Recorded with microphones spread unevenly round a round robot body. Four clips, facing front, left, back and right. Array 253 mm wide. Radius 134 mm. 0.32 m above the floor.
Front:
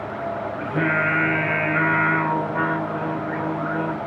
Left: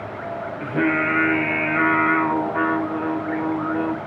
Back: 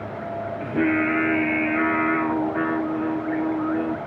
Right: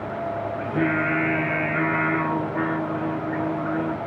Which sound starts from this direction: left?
Singing, at 0.6 s.